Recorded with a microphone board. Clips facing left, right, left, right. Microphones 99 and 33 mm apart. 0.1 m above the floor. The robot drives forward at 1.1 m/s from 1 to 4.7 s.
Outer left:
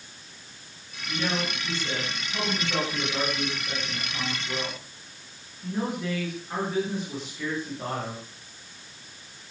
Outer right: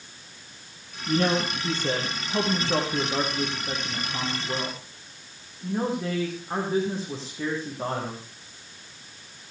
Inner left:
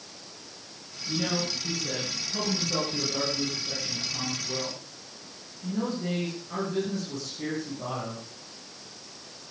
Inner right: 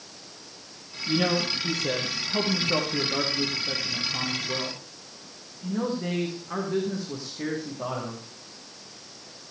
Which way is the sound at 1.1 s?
55° right (ahead or behind).